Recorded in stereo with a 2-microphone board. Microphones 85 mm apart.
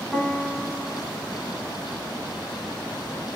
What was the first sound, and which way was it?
A piano, centre (ahead or behind).